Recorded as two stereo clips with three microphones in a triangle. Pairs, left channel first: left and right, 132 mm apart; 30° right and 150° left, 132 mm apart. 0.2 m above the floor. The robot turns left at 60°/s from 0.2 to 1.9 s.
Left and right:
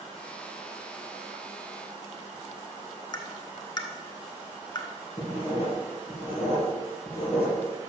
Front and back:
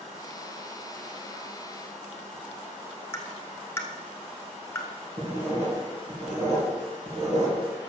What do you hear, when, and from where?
3.1 s tapping: 35° left, 1.1 m
5.2 s writing: 125° left, 4 m